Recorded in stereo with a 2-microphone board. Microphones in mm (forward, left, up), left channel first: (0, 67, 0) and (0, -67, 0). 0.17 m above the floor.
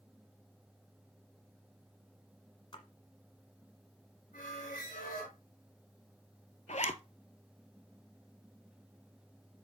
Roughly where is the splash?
Left.